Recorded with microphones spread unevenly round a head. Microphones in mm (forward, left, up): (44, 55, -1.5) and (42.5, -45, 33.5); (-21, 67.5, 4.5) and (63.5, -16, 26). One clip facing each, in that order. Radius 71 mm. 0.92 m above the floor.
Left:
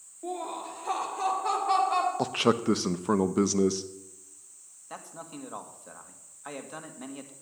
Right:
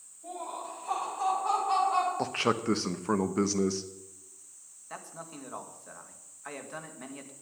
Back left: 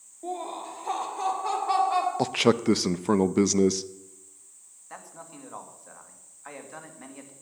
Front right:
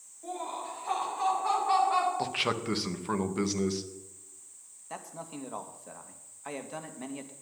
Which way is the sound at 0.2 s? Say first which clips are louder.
Left 4 dB, back left 3 dB; 95° left.